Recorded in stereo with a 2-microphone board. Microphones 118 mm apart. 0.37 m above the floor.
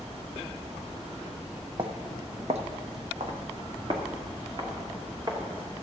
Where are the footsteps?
45° right (ahead or behind), 0.8 m; by 5.4 s 40° right (ahead or behind), 2.5 m.